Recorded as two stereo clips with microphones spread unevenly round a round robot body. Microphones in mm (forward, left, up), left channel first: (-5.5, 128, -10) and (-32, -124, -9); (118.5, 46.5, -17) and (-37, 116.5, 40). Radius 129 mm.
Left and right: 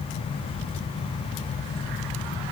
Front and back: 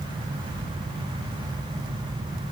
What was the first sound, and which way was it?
Only background noise.